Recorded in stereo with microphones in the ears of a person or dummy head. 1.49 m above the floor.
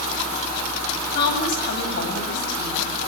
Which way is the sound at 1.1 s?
60° left (ahead or behind).